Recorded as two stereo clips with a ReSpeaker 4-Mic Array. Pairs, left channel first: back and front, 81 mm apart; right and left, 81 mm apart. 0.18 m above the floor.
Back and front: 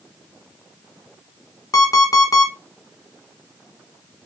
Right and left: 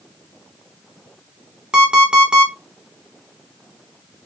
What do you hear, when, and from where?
1.7 s an alarm clock: 170° left, 0.9 m